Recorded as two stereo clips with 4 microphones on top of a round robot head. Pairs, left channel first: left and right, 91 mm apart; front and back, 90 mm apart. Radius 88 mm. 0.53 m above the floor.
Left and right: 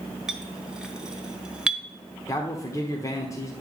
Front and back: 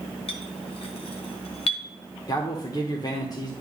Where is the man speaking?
40° left, 1.2 m.